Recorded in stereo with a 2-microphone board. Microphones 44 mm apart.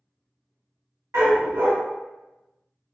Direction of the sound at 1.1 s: 75° right (ahead or behind).